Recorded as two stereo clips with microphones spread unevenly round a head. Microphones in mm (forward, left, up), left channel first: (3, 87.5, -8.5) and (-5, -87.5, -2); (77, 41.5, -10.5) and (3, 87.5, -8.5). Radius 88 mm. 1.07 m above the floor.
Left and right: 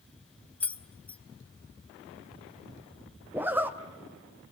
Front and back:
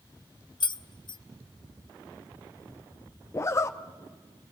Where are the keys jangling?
5° left, 0.6 m.